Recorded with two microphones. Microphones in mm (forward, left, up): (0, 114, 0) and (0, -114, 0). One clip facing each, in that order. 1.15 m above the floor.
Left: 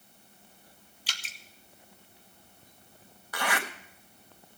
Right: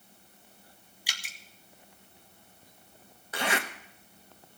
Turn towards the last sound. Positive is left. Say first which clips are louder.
# right 2 dB
turn(degrees=-25)  # may be behind; listen again after turning